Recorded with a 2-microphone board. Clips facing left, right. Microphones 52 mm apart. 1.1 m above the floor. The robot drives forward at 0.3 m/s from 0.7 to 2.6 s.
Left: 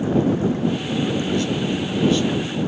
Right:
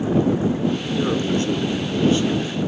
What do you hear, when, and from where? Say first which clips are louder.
1.0 s a man speaking: right 2 dB; 40° right (ahead or behind), 0.8 m; by 2.6 s 30° right (ahead or behind), 1.0 m